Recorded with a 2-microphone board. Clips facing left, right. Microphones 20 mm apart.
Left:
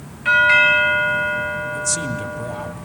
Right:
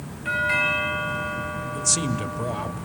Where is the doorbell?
30° left (ahead or behind), 2 m.